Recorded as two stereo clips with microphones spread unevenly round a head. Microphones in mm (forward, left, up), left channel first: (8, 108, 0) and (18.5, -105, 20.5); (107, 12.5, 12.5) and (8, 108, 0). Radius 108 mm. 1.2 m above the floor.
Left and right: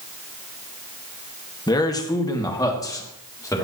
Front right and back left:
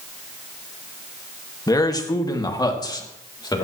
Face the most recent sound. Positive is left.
turn(degrees=15)